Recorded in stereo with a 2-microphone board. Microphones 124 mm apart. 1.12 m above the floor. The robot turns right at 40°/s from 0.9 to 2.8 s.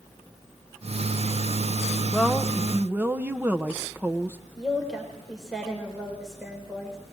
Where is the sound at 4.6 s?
Centre (ahead or behind), 4 m.